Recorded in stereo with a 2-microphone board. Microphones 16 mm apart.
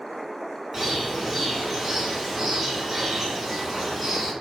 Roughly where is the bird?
Right.